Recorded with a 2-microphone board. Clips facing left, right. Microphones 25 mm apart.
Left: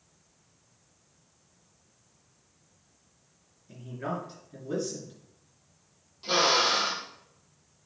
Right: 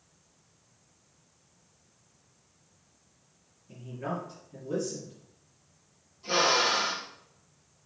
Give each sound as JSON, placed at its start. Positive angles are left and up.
{"t": 3.7, "sound": "a man speaking", "side_deg": 40, "distance_m": 3.0}
{"t": 6.2, "sound": "a drill", "side_deg": 75, "distance_m": 3.5}